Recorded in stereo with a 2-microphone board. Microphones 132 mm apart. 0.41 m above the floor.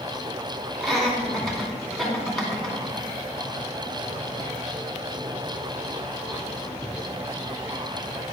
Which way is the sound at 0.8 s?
Centre (ahead or behind).